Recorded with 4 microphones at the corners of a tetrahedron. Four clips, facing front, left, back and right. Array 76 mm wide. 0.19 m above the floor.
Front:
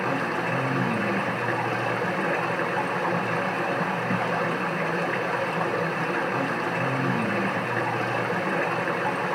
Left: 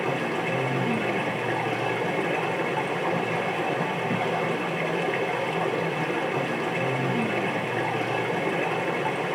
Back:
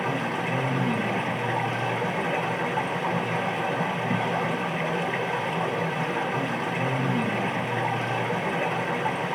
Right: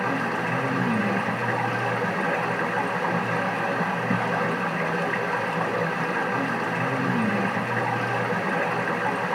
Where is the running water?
45° right, 2.0 m.